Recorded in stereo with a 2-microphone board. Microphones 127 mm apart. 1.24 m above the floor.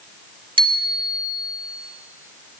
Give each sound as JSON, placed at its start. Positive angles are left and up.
{"t": 0.6, "sound": "a bicycle bell", "side_deg": -40, "distance_m": 2.0}